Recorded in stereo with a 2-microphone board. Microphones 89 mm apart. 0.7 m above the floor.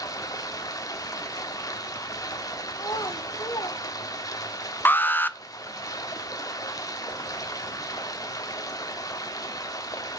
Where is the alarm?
25° left (ahead or behind), 0.6 m.